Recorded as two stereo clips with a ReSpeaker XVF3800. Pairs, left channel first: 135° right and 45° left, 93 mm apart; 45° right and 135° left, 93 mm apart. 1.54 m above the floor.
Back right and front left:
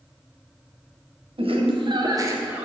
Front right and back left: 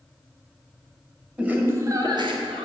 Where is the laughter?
60° left, 1.5 m; by 2.7 s 125° left, 1.1 m.